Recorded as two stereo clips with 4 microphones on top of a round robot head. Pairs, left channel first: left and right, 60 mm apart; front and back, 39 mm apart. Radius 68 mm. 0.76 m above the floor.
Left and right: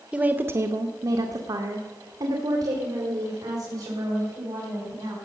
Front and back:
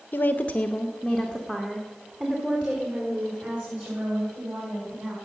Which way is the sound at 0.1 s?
20° right.